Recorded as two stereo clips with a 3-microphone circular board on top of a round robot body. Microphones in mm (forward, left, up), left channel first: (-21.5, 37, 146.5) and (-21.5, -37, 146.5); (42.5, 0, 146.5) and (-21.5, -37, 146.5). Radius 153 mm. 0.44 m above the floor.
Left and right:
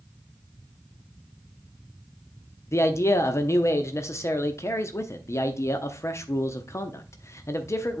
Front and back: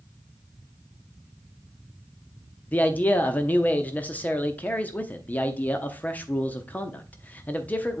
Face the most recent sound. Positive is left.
turn(degrees=85)